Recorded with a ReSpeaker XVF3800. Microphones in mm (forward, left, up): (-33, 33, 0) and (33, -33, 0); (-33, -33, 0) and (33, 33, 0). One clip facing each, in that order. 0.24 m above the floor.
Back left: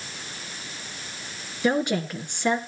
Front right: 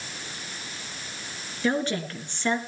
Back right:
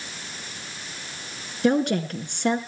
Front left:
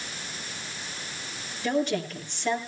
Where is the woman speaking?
150° right, 3 m.